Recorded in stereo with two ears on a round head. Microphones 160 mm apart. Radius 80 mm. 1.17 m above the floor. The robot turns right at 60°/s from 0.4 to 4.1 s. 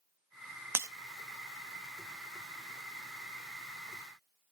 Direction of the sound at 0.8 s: 15° right (ahead or behind).